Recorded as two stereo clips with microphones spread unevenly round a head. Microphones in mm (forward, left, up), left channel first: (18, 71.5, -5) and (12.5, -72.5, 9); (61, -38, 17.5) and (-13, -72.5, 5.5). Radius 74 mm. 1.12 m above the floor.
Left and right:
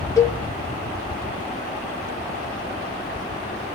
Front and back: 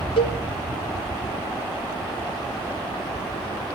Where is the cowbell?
20° left, 2.5 m.